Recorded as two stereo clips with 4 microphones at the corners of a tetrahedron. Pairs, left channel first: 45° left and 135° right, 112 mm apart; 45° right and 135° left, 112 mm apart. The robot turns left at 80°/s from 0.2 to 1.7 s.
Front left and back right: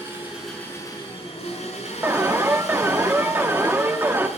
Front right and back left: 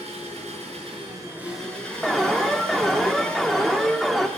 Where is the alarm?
130° right, 1.0 m.